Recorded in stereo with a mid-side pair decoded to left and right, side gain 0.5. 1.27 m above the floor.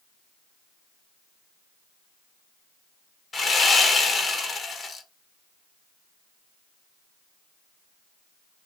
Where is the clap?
No clap in this recording.